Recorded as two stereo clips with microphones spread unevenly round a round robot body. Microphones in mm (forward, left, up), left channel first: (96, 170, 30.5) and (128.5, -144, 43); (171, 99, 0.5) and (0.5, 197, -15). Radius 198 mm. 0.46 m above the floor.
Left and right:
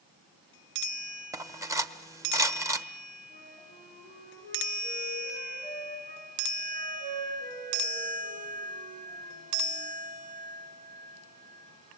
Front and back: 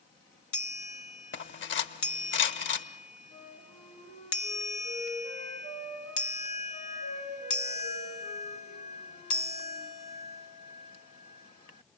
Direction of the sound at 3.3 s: 160° right.